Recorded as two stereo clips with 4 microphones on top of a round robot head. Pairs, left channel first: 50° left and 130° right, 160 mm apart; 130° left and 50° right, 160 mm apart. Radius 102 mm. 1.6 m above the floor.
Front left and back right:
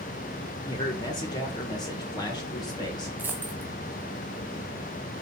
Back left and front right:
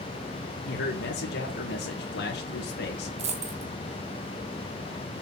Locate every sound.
0.7 s a man speaking: 115° left, 1.9 m
3.2 s a dropped coin: 55° right, 0.9 m